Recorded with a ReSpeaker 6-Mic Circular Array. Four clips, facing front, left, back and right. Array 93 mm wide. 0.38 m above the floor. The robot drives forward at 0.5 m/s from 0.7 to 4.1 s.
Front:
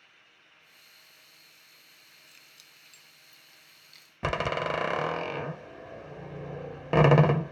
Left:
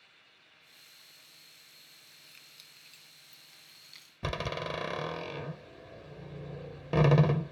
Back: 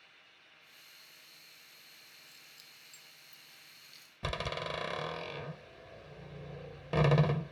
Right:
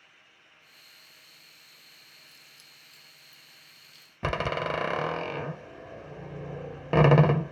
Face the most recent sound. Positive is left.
turn(degrees=-40)